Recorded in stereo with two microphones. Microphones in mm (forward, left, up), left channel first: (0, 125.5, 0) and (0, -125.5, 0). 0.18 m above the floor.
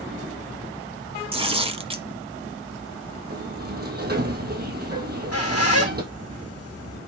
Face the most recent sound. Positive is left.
turn(degrees=70)  # may be behind; listen again after turning